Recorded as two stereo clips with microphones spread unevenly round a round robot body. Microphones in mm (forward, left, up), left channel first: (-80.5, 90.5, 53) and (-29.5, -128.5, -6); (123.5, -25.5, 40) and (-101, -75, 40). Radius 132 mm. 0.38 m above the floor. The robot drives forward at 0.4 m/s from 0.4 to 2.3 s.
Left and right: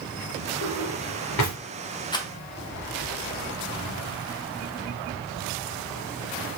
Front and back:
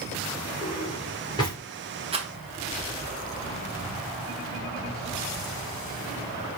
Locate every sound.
0.6 s a drawer: 80° left, 1.8 m; by 1.6 s 90° left, 1.8 m
2.1 s a rattle: 175° right, 1.2 m